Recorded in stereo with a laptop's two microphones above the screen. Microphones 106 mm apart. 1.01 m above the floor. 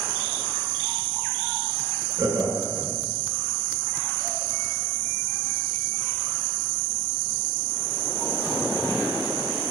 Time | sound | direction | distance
2.2 | laughter | 30° right (ahead or behind) | 0.8 m